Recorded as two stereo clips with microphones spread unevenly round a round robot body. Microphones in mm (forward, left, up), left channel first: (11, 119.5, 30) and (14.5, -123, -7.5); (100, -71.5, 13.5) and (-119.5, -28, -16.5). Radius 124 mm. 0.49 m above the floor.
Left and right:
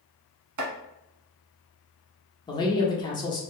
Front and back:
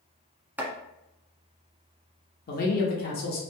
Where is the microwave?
I don't hear a microwave.